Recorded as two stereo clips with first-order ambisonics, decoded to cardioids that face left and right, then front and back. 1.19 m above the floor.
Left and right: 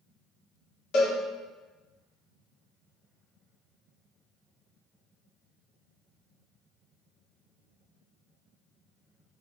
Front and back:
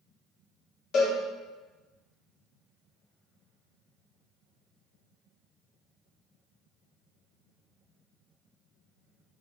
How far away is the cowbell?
About 1.2 m.